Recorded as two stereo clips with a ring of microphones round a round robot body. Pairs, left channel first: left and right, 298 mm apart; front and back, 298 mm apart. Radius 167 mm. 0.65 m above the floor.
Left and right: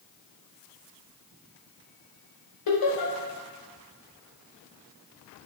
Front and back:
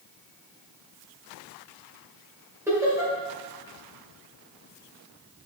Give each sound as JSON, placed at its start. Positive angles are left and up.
{"t": 2.7, "sound": "laughter", "azimuth_deg": 100, "distance_m": 2.5}